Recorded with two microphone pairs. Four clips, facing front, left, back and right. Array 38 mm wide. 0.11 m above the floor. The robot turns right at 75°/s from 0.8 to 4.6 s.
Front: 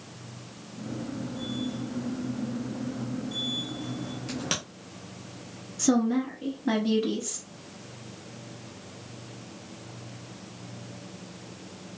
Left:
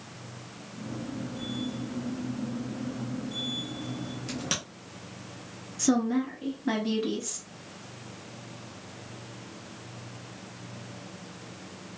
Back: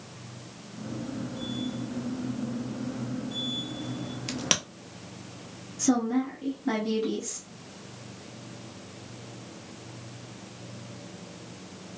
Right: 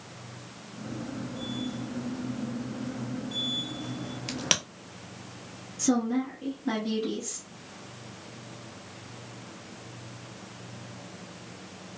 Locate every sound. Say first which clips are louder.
4.3 s a crack: right 5 dB, back 3 dB; 140° right, 0.8 m; by 4.6 s 120° right, 0.8 m
5.8 s a woman speaking: left 1 dB, front 1 dB; 55° left, 1.2 m